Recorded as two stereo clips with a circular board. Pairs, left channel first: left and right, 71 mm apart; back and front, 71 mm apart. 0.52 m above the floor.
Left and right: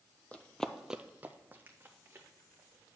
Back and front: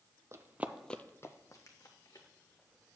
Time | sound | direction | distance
0.3 | running footsteps | 25° left | 0.7 m